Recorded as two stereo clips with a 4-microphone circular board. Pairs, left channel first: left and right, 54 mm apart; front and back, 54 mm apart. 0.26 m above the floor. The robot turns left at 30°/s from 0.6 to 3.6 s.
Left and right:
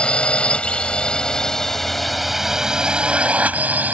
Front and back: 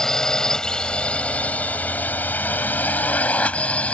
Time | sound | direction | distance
0.0 | a drone | 65° left | ?